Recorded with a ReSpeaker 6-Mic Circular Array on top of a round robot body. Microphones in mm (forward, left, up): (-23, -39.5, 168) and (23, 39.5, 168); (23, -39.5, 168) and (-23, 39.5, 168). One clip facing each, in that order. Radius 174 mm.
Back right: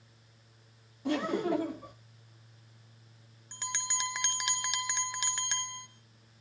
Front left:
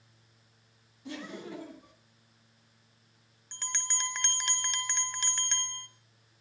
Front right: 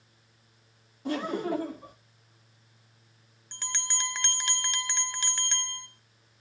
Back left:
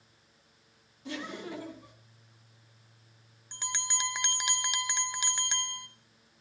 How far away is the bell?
About 1.2 m.